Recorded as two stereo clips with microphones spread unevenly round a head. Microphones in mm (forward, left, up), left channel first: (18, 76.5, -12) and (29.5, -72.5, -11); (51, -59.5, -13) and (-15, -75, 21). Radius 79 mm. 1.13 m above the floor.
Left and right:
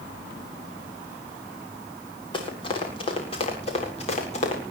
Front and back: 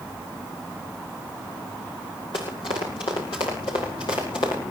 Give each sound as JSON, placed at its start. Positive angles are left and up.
{"t": 2.3, "sound": "running footsteps", "azimuth_deg": 35, "distance_m": 7.5}